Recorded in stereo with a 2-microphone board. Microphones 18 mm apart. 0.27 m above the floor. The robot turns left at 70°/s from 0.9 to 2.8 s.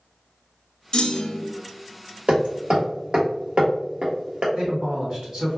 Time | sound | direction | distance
0.9 | a clunk | 135° left | 0.5 m
2.3 | hammering | 80° right | 1.3 m
4.5 | a man speaking | 60° right (ahead or behind) | 2.0 m